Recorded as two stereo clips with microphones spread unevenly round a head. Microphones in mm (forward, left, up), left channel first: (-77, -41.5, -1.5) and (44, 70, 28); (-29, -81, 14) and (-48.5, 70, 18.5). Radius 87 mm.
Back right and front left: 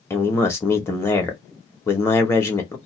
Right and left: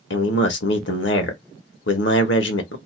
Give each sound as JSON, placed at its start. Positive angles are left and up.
{"t": 0.1, "sound": "a man speaking", "azimuth_deg": -60, "distance_m": 1.2}